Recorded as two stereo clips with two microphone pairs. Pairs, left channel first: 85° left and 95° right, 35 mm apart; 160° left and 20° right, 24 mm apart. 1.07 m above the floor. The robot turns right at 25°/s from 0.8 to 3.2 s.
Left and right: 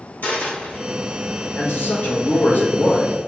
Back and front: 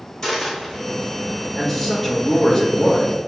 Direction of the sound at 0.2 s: 90° left.